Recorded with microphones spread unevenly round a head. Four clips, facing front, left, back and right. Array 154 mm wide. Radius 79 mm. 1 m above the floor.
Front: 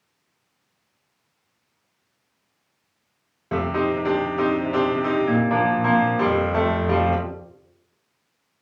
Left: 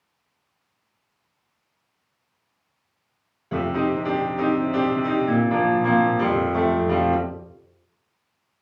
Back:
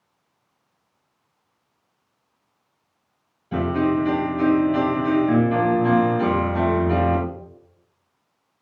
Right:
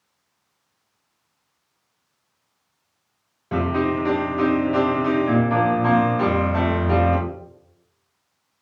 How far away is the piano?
About 3 m.